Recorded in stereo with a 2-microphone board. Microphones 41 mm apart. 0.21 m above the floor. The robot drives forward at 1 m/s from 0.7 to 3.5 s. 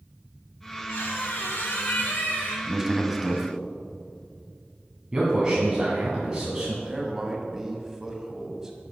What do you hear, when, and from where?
0.9 s a squeak: 75° left (ahead or behind), 2.5 m; by 2.6 s 45° left (ahead or behind), 3.5 m
2.7 s a man speaking: 10° right (ahead or behind), 1.0 m
5.1 s a man speaking: 15° right (ahead or behind), 2 m
6.8 s a man speaking: 15° right (ahead or behind), 1.3 m